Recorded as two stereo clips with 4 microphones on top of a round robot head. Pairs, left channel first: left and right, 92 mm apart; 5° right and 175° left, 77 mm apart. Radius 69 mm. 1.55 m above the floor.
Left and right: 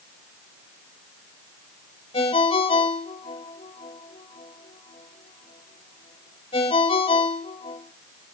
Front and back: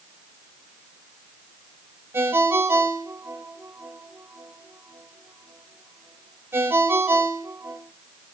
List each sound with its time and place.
2.1 s a ringtone: 115° left, 4 m